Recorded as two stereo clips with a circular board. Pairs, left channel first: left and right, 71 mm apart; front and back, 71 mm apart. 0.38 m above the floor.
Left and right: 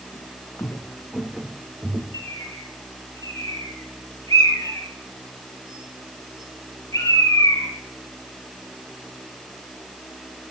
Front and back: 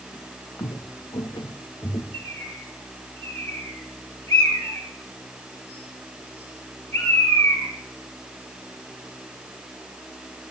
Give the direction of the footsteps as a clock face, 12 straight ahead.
10 o'clock.